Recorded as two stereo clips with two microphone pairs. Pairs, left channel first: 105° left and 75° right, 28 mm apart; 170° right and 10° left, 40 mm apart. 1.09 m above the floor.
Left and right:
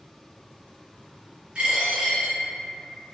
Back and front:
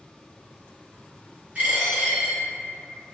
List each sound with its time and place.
1.6 s a dropped coin: 35° right, 1.5 m